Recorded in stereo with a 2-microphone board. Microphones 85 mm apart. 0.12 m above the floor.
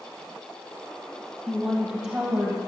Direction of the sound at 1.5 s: 5° left (ahead or behind).